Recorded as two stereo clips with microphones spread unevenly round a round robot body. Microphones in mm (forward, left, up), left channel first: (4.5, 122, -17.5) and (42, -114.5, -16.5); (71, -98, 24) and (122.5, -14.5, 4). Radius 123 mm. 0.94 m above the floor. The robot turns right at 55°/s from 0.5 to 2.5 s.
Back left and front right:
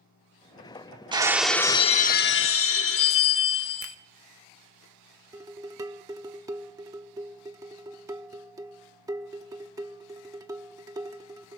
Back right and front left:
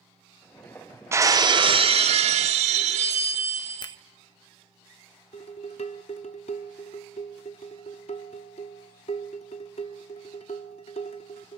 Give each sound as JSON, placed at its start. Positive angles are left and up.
{"t": 1.1, "sound": "breaking glass", "azimuth_deg": -10, "distance_m": 0.9}
{"t": 3.8, "sound": "a finger snap", "azimuth_deg": -75, "distance_m": 1.0}
{"t": 5.3, "sound": "dishes clattering", "azimuth_deg": -160, "distance_m": 0.8}